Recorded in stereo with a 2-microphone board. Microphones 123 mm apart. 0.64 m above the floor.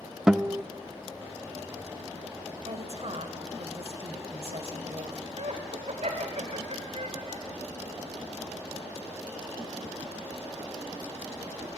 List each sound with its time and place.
0.3 s a guitar: 5° right (ahead or behind), 0.6 m
2.6 s a woman speaking: 55° right (ahead or behind), 2.5 m
5.4 s laughter: 60° right (ahead or behind), 2.5 m